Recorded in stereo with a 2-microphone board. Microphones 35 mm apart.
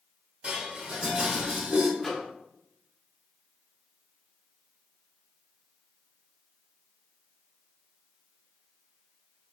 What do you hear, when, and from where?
0.4 s dishes clattering: 25° right (ahead or behind), 1.8 m
2.0 s a microwave: 10° left (ahead or behind), 1.0 m